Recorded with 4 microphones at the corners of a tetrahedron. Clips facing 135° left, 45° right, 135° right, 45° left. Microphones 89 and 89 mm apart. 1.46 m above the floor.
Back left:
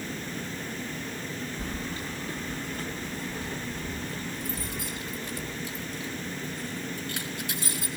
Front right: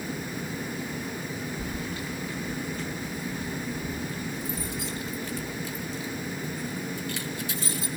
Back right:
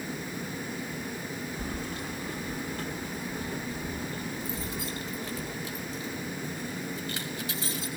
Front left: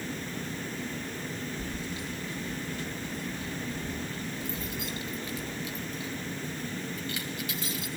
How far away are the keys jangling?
About 1.3 m.